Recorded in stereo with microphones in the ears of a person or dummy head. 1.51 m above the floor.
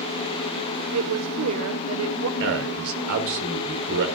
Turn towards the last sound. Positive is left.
turn(degrees=-70)  # may be behind; listen again after turning